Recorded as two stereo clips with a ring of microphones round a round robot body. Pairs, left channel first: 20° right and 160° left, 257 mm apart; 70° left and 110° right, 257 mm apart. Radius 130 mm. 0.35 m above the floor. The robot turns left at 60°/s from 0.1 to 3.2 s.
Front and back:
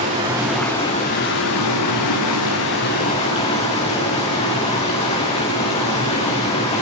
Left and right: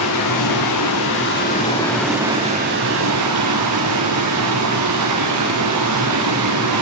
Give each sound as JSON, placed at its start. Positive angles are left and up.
{"t": 0.0, "sound": "running water", "azimuth_deg": 95, "distance_m": 8.5}